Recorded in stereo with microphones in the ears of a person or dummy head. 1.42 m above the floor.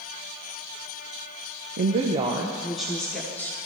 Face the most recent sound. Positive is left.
turn(degrees=10)  # may be behind; listen again after turning